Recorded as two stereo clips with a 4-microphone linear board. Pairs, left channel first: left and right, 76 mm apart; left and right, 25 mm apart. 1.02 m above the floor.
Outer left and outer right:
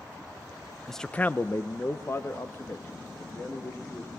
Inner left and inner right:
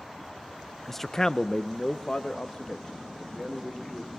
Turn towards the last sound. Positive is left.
turn(degrees=35)  # may be behind; listen again after turning